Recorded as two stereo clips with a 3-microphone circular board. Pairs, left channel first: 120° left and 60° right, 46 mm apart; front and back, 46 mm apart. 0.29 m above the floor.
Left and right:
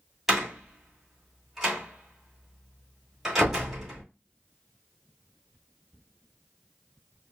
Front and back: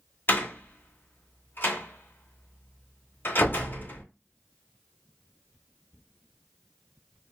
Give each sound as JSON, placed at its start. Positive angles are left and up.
{"t": 0.3, "sound": "a door slam", "azimuth_deg": 20, "distance_m": 1.8}